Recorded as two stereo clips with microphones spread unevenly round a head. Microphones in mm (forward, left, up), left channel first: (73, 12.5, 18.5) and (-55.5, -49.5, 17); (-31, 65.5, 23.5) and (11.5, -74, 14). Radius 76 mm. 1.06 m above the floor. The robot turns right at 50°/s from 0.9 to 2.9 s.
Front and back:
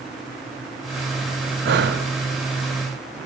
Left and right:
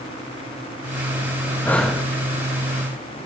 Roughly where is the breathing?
Behind.